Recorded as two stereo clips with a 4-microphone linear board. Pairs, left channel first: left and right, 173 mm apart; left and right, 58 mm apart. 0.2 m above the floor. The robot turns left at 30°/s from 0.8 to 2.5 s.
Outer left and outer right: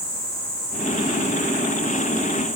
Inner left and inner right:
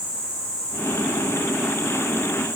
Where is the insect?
85° right, 8.5 m; by 2.6 s 135° right, 8.5 m.